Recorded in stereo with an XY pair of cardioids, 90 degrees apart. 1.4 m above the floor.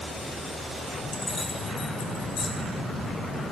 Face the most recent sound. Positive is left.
turn(degrees=70)